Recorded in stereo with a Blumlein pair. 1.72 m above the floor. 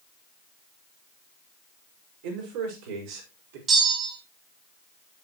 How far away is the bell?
About 3.5 m.